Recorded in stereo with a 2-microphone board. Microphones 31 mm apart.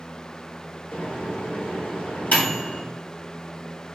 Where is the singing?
I don't hear singing.